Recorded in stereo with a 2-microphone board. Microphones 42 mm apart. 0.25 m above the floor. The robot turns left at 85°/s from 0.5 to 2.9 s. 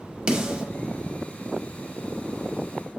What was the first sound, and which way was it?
A snare drum, 25° right (ahead or behind).